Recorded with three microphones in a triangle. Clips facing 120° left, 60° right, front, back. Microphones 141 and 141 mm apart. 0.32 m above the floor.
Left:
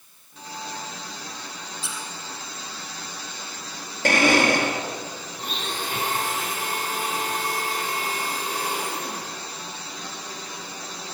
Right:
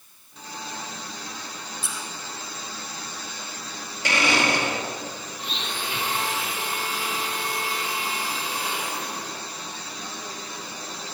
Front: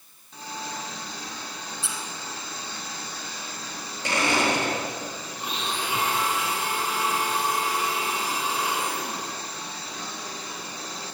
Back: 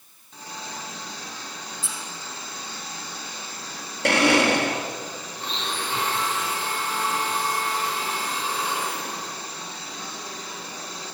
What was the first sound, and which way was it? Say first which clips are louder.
A squeak: left 1 dB, front 2 dB; 25° right.